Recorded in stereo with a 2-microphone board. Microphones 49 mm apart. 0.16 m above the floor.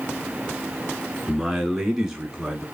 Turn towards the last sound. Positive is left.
turn(degrees=-15)  # may be behind; listen again after turning